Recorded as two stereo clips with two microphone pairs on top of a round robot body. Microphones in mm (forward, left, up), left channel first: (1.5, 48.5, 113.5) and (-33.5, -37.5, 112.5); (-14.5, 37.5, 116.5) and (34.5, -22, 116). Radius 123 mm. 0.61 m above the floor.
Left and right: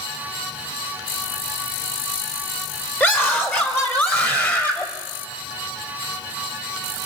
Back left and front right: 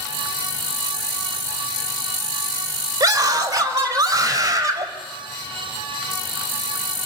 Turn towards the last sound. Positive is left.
turn(degrees=0)